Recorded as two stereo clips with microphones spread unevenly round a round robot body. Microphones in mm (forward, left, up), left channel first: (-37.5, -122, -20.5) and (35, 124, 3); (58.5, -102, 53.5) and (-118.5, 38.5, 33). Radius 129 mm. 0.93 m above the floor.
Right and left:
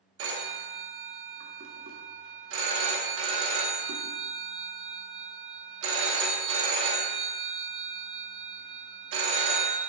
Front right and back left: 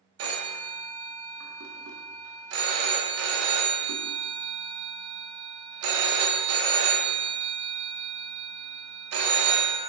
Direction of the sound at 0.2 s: 115° left.